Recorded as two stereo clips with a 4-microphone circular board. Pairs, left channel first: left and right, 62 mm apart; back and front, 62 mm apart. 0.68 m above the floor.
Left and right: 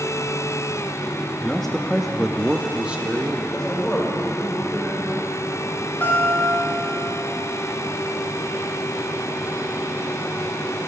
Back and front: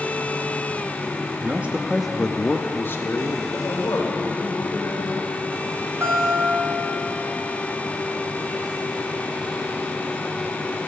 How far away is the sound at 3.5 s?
About 2.5 m.